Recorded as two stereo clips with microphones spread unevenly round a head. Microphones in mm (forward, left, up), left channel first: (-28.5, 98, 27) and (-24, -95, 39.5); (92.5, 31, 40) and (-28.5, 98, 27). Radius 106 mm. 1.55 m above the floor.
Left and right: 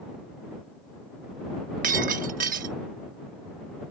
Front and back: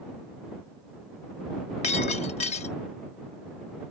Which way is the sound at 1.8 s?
55° right.